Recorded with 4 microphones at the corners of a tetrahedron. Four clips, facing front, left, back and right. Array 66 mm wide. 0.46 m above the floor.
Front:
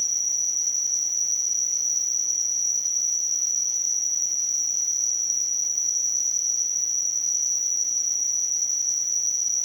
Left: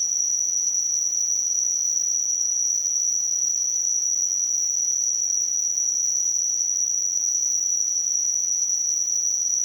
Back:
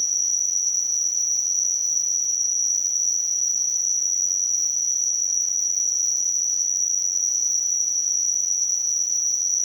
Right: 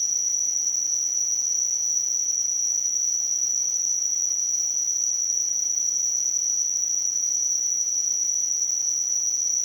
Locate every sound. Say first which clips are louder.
0.0 s an insect: left 1 dB, back 2 dB; 10° right, 1.7 m